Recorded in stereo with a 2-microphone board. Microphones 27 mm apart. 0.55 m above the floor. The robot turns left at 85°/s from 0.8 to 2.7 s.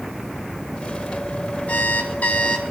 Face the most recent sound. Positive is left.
turn(degrees=20)